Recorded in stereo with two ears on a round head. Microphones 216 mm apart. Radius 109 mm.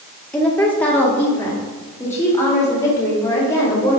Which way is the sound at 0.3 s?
5° left (ahead or behind).